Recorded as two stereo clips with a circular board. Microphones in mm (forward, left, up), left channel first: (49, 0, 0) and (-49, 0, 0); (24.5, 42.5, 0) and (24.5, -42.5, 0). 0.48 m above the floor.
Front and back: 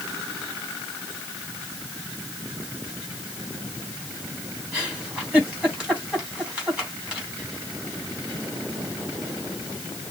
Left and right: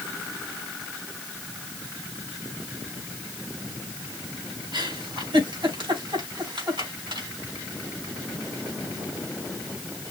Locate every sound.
4.7 s a giggle: 100° right, 3.5 m